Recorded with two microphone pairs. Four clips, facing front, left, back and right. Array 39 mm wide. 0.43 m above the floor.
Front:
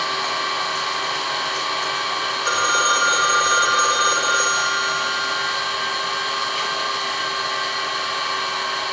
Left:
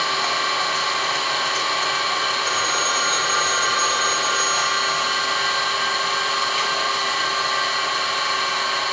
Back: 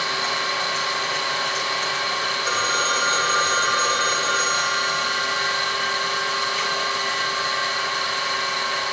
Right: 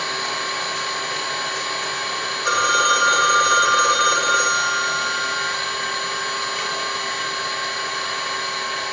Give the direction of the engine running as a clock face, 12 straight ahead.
10 o'clock.